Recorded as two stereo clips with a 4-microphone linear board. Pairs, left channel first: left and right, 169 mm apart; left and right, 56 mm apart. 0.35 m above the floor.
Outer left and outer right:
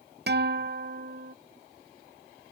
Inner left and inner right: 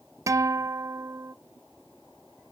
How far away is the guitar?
About 0.5 m.